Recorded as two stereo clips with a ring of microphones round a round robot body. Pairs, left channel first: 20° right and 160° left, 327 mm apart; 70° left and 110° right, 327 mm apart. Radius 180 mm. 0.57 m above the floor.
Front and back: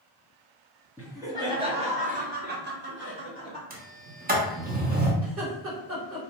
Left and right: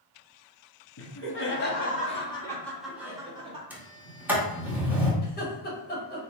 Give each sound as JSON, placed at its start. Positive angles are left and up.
{"t": 1.0, "sound": "laughter", "azimuth_deg": 75, "distance_m": 1.3}
{"t": 3.7, "sound": "a sliding door", "azimuth_deg": 170, "distance_m": 1.1}
{"t": 5.2, "sound": "laughter", "azimuth_deg": 120, "distance_m": 1.8}